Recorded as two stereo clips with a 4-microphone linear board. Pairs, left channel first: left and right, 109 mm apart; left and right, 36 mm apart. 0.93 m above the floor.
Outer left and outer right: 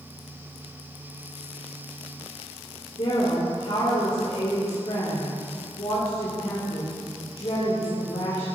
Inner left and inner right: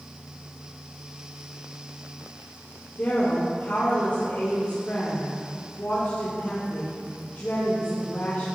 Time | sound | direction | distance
3.0 | a woman speaking | 60° left (ahead or behind) | 2 m